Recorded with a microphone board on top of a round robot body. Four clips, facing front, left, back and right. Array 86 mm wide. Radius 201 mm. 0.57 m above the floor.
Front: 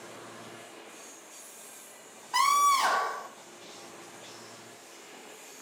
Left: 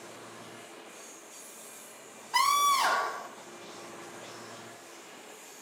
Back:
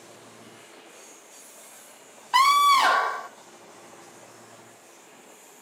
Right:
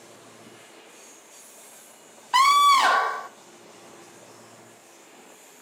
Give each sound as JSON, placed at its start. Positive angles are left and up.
{"t": 2.3, "sound": "a scream", "azimuth_deg": -125, "distance_m": 1.6}